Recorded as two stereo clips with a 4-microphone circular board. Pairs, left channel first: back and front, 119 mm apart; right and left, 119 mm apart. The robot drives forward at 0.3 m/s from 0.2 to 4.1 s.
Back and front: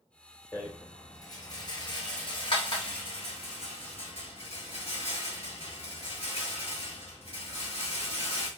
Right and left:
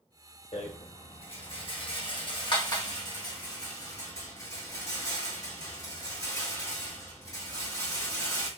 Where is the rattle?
110° right, 1.0 m; by 8.5 s 150° right, 1.7 m.